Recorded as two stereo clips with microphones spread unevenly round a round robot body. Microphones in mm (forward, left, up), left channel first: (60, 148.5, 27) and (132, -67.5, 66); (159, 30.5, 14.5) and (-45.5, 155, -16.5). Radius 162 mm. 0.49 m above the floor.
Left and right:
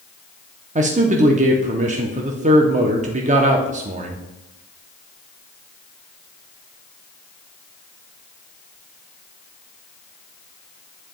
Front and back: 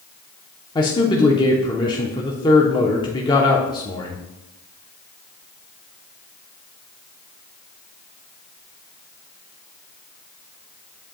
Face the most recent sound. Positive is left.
turn(degrees=-95)